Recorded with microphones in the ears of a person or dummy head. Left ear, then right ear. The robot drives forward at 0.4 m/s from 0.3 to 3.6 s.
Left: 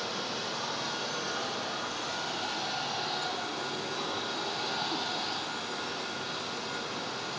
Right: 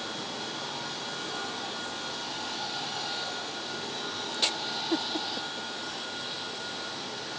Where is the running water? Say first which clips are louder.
Left 1 dB; 85° left, 1.0 m; by 7.4 s 40° left (ahead or behind), 1.6 m.